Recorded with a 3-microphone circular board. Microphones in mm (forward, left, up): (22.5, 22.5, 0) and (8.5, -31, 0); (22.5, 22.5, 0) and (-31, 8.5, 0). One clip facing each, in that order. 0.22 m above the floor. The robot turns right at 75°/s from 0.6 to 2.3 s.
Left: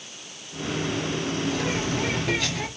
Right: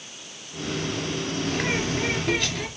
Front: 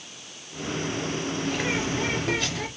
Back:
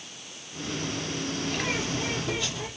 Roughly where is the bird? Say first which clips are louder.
Right 3 dB, front 3 dB; right.